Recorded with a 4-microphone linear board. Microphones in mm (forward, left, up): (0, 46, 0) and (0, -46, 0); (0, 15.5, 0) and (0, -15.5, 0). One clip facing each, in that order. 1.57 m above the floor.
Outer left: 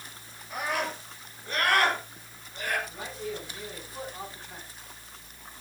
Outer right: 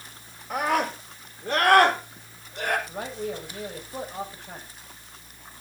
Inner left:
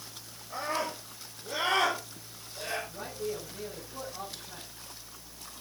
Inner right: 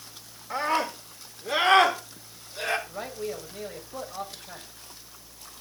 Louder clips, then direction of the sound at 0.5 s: Outer right 6 dB, inner right 6 dB; 85° right.